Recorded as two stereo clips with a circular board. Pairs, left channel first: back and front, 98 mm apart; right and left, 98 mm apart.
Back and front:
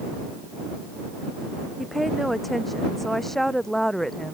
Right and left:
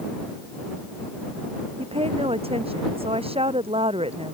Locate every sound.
1.8 s a woman speaking: 90° left; by 4.3 s 95° left